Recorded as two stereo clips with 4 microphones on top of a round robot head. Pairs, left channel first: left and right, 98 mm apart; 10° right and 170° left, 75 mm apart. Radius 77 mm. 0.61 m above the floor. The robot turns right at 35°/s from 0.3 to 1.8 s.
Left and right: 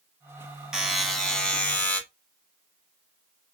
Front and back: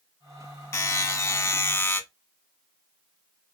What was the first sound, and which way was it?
A buzzer, 10° right.